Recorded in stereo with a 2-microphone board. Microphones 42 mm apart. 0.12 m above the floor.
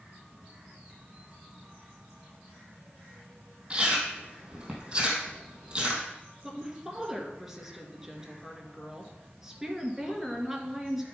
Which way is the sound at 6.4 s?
10° right (ahead or behind).